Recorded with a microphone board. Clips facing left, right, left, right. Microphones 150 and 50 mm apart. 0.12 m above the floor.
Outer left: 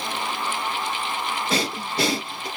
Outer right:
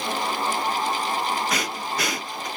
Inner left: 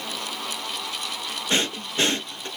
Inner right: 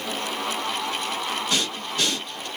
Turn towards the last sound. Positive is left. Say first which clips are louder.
# outer left 2 dB, inner left 1 dB
turn(degrees=30)  # may be behind; listen again after turning